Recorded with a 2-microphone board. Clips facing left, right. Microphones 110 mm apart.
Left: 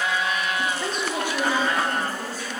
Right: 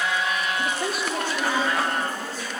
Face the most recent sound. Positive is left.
turn(degrees=45)  # may be behind; listen again after turning